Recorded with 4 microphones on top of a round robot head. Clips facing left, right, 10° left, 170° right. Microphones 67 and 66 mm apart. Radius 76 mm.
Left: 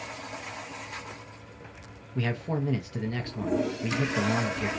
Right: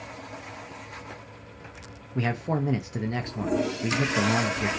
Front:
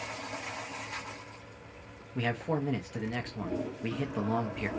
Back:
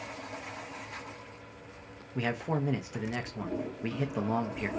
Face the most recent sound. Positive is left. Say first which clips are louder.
# right 3 dB, even
turn(degrees=-100)